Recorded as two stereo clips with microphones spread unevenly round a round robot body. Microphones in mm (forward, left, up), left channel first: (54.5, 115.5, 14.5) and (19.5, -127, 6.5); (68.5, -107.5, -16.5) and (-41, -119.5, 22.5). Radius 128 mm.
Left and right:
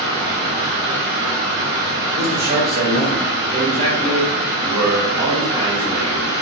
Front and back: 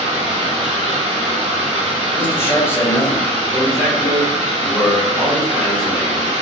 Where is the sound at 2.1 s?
50° right, 1.3 m.